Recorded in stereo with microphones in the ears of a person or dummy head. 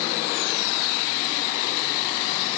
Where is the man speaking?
I don't hear a man speaking.